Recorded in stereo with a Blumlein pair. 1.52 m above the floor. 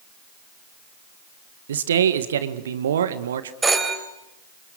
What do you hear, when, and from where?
1.7 s a man speaking: 65° right, 1.7 m
3.6 s a phone ringing: 10° right, 4 m